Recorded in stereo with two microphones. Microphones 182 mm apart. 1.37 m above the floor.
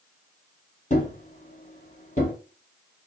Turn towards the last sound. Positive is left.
turn(degrees=45)  # may be behind; listen again after turning